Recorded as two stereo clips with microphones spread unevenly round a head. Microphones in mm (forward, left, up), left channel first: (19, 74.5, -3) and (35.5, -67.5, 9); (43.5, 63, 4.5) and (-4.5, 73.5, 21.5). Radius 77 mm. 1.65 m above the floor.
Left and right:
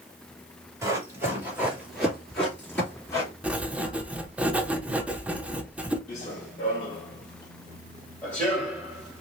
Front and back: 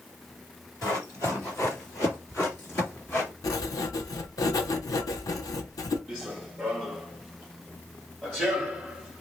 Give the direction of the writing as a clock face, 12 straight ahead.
12 o'clock.